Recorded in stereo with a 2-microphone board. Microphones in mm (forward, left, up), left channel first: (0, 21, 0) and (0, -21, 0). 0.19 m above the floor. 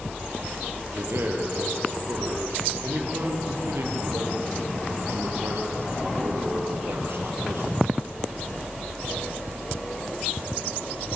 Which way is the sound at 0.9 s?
75° right (ahead or behind).